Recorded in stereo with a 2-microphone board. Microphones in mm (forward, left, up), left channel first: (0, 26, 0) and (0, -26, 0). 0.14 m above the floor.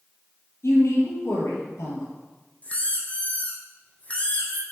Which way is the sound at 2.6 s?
25° left (ahead or behind).